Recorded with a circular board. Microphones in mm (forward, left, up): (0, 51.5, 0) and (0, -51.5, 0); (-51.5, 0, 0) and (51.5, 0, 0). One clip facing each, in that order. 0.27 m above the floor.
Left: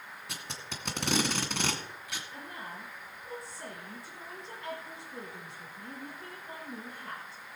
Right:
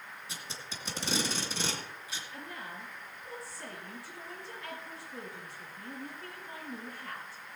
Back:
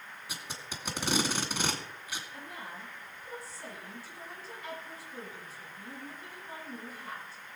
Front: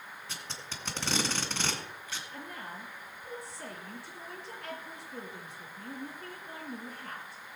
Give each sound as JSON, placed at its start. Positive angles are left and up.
{"t": 0.3, "sound": "tape being pulled", "azimuth_deg": 105, "distance_m": 2.0}
{"t": 2.3, "sound": "a woman speaking", "azimuth_deg": 25, "distance_m": 6.0}